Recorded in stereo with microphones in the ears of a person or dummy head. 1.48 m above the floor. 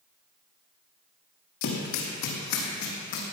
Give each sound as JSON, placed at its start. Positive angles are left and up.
{"t": 1.6, "sound": "running footsteps", "side_deg": 60, "distance_m": 3.0}